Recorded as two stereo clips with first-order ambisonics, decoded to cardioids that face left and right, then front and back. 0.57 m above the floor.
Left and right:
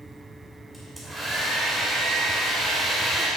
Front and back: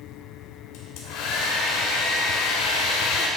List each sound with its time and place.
0.7 s a hair dryer: 5° right, 2.5 m